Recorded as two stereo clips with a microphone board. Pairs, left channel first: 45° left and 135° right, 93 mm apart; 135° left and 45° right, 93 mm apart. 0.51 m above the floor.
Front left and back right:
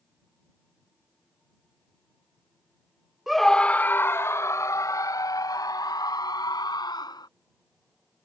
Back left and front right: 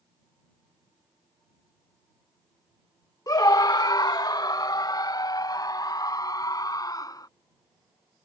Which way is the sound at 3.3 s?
140° left.